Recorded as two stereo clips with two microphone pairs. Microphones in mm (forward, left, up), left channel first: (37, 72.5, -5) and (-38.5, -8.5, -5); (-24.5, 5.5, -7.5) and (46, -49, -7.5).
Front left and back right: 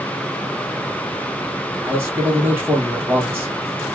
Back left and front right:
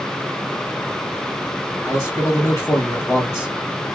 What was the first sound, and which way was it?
A man speaking, 175° left.